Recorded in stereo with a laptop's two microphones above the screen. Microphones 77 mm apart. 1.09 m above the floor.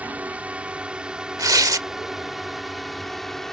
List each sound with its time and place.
0.0 s a drone: 20° right (ahead or behind); by 3.5 s 5° left (ahead or behind)
1.4 s tearing paper: 50° right (ahead or behind)